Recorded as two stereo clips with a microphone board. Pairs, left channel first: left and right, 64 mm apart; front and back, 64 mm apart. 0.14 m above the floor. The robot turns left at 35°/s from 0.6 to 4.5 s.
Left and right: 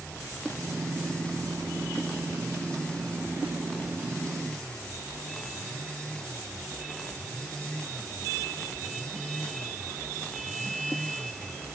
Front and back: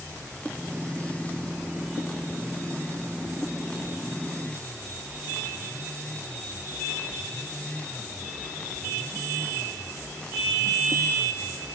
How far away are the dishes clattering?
I don't hear dishes clattering.